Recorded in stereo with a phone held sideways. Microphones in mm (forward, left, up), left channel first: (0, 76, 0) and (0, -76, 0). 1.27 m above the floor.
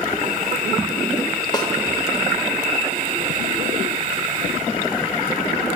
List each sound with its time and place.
1.5 s a snare drum: 30° left (ahead or behind), 1.1 m